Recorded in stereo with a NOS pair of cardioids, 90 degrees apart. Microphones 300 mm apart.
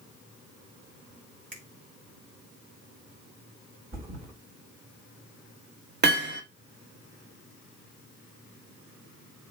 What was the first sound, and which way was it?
A finger snap, 40° right.